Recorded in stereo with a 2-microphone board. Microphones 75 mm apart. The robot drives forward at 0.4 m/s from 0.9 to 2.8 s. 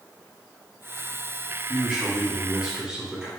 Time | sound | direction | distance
1.7 | a man speaking | 10° right (ahead or behind) | 1.6 m